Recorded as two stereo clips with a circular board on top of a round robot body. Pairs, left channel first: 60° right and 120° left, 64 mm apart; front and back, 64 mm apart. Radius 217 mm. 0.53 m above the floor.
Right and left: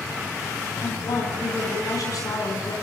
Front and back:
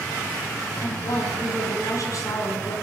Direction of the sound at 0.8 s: 35° right.